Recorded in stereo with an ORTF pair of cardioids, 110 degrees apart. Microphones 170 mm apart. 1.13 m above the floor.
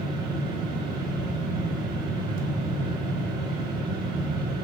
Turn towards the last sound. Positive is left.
turn(degrees=-70)